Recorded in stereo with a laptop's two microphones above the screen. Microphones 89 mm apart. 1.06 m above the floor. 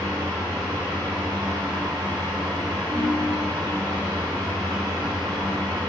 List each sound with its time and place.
0.0 s a fan: 50° right (ahead or behind), 1.3 m
2.9 s a ringtone: 85° right, 1.4 m